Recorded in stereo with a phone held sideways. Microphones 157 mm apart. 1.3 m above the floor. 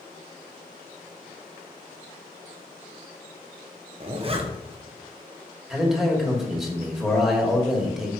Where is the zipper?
40° right (ahead or behind), 0.8 m.